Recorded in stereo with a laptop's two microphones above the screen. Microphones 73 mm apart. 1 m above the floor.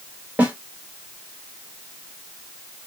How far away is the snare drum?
About 2.0 m.